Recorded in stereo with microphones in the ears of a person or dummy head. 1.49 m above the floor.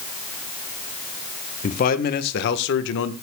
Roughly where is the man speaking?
Left.